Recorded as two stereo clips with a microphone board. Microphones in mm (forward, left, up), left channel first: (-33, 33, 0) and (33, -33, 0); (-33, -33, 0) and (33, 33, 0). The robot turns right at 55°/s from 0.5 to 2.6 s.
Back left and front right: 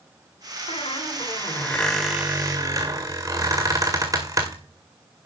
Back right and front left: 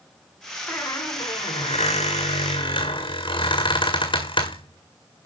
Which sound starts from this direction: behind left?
A squeak, at 0.7 s.